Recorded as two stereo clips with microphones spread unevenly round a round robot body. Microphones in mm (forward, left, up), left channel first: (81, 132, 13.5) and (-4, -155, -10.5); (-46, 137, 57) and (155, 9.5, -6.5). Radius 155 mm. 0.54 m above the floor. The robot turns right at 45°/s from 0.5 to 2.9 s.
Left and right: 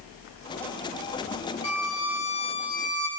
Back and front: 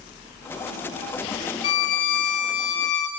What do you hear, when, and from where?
1.6 s a violin: 115° left, 1.5 m; by 3.1 s 170° left, 1.5 m